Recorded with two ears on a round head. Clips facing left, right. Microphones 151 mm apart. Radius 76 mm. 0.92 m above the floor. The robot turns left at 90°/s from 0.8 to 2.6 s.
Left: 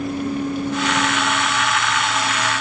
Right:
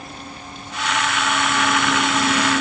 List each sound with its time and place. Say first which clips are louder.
0.0 s a vehicle: left 14 dB; 50° left; by 2.6 s 115° right